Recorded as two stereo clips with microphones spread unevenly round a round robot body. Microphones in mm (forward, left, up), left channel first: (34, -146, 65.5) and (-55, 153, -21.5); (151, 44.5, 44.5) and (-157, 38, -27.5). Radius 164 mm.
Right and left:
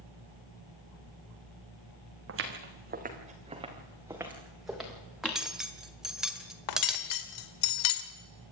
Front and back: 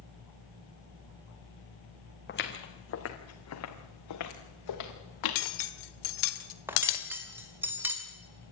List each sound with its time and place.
2.3 s footsteps: 55° left, 2.5 m; by 5.5 s 10° left, 4.5 m
5.2 s cutlery clinking: 20° left, 1.5 m
6.7 s cutlery clinking: 95° right, 1.9 m